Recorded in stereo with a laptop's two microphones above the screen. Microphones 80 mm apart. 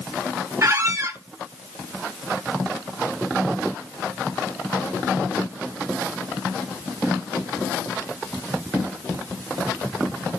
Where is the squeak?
40° right (ahead or behind), 0.8 m.